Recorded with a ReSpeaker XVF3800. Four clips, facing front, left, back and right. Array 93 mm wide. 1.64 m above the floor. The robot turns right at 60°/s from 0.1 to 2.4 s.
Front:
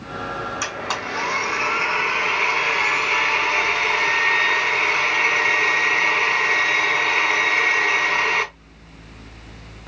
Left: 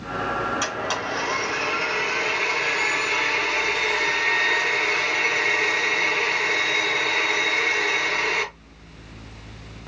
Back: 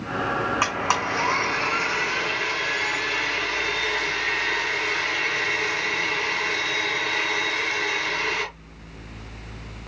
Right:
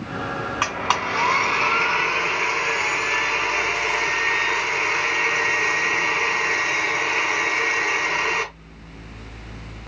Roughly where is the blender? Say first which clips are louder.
Right 4 dB, back 3 dB; behind right.